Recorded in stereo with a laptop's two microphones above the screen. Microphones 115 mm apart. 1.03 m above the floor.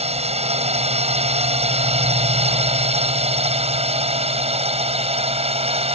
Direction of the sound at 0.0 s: 70° right (ahead or behind).